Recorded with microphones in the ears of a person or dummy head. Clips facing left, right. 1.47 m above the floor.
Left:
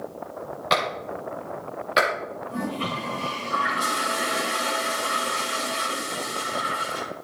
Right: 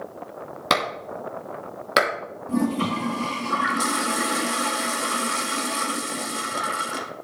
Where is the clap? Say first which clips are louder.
Even; 60° right (ahead or behind), 2.5 m.